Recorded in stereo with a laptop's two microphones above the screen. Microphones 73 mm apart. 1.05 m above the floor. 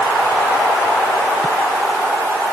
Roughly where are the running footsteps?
No running footsteps in this recording.